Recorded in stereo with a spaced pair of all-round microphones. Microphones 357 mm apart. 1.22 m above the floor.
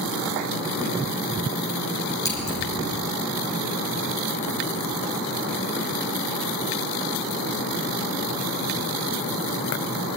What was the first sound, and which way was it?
Scissors, 10° left (ahead or behind).